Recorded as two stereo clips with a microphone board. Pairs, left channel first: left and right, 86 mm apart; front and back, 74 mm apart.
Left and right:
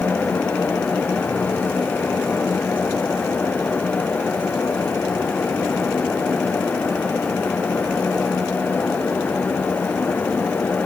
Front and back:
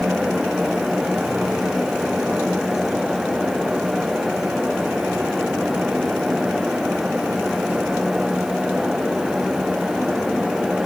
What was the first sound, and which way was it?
Only background noise.